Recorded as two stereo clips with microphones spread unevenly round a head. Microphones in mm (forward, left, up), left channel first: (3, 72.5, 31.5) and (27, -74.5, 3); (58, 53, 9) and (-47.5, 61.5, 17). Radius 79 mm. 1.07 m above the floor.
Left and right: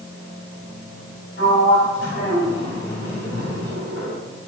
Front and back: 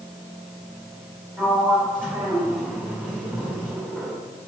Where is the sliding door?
105° left, 4 m.